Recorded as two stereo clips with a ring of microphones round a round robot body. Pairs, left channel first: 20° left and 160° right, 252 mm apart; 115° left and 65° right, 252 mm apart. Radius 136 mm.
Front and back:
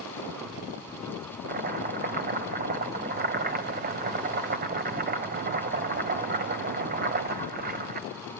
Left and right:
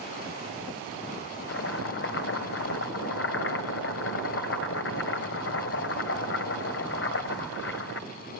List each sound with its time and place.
1.5 s chopping: 150° left, 2 m